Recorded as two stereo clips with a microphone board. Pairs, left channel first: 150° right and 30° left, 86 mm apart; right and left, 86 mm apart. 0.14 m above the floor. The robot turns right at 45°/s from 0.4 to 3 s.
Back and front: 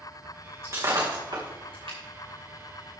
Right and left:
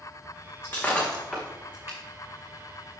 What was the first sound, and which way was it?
Breaking glass, 25° right.